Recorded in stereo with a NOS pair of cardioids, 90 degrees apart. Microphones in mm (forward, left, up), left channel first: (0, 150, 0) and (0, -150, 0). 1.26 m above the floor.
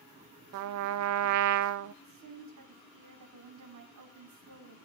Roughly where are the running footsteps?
I don't hear running footsteps.